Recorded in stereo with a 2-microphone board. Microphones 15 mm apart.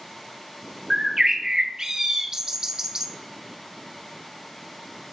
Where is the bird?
35° right (ahead or behind), 0.6 m.